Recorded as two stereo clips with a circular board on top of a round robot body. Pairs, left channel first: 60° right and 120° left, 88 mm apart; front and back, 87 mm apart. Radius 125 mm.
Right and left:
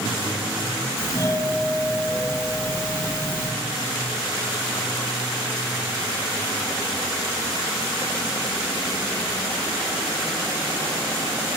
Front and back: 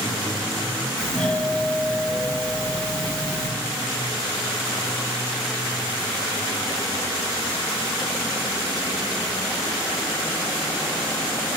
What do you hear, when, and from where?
1.0 s a doorbell: 80° right, 1.6 m